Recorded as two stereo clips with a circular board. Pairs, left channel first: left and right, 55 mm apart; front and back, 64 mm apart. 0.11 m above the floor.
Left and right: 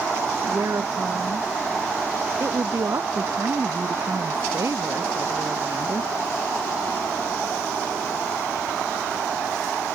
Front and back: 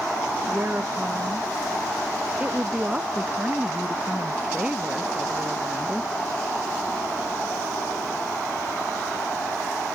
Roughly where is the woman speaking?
Behind right.